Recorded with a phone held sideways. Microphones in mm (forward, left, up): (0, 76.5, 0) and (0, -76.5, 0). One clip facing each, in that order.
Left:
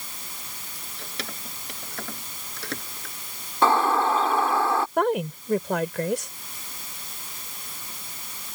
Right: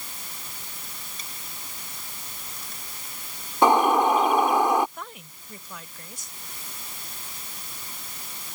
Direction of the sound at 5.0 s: 75° left (ahead or behind).